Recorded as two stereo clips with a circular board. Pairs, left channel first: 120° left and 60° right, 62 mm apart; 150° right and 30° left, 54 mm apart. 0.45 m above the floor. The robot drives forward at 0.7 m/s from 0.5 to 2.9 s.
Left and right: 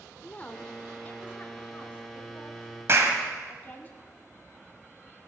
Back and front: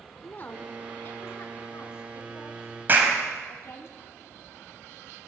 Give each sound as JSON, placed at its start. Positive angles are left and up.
{"t": 0.2, "sound": "a woman speaking", "azimuth_deg": 175, "distance_m": 0.9}
{"t": 2.9, "sound": "a clap", "azimuth_deg": -20, "distance_m": 1.9}